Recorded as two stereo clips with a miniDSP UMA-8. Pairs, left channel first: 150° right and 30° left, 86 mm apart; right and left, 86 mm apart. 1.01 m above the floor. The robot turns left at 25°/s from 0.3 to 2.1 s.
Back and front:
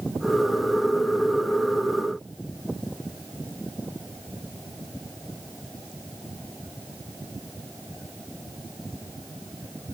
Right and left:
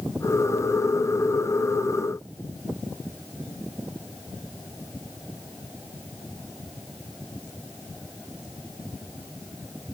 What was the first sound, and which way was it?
Only background noise.